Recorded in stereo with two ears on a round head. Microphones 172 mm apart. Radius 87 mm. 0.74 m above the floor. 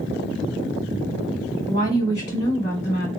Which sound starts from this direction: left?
A woman speaking, at 1.7 s.